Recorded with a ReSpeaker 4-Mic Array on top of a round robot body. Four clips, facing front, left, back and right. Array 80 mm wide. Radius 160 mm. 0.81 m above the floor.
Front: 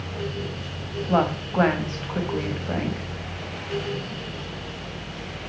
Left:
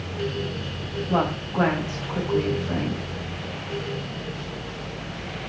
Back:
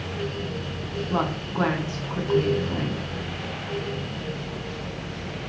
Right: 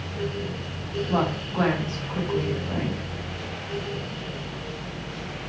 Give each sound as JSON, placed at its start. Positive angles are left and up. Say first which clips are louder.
{"t": 1.1, "sound": "a woman speaking", "louder": "left 2 dB, front 5 dB", "azimuth_deg": 10, "distance_m": 6.0}